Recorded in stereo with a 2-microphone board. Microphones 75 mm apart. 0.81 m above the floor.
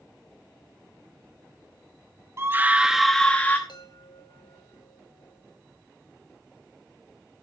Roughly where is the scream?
Right.